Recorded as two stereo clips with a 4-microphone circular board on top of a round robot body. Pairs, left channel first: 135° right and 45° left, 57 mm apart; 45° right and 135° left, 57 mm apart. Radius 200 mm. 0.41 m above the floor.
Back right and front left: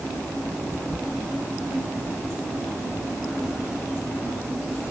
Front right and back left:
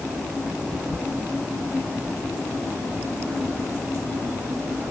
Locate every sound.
Only background noise.